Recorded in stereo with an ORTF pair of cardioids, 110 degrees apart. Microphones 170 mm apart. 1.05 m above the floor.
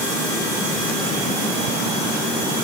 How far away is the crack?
No crack in this recording.